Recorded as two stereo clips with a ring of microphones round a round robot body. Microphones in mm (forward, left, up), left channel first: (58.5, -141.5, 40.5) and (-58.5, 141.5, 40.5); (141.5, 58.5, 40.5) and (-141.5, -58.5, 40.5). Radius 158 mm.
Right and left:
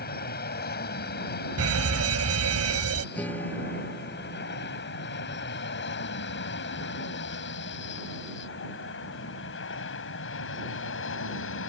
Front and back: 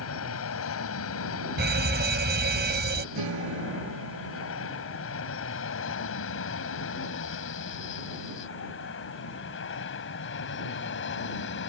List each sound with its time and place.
0.0 s an aircraft: 15° right; by 11.7 s 25° right
1.6 s an alarm: 150° left
3.1 s a guitar: 150° right